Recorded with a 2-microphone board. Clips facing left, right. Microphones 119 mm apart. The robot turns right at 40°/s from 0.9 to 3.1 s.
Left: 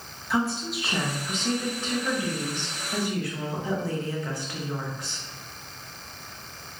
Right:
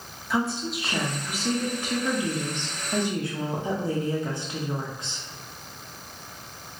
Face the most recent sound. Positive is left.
turn(degrees=-20)  # may be behind; listen again after turning